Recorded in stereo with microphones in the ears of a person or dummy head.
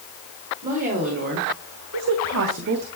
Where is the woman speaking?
40° right (ahead or behind), 1.6 m; by 2.9 s 50° right (ahead or behind), 0.9 m.